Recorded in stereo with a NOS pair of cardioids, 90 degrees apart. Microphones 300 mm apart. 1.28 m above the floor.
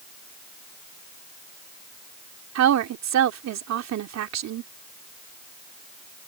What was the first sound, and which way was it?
A woman speaking, 65° right.